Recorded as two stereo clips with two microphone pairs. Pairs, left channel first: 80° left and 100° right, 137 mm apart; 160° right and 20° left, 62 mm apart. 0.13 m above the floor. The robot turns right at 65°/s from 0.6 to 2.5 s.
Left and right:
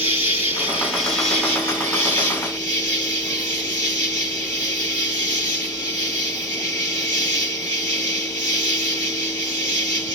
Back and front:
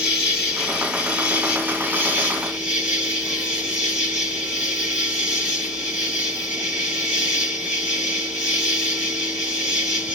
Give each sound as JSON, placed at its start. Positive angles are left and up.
{"t": 0.0, "sound": "an insect", "azimuth_deg": -50, "distance_m": 2.5}